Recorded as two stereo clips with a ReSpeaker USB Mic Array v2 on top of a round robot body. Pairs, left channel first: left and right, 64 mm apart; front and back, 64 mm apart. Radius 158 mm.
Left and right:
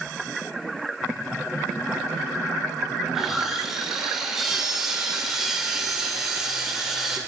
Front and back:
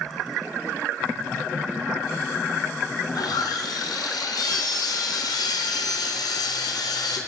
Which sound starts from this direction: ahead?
Sawing, at 3.0 s.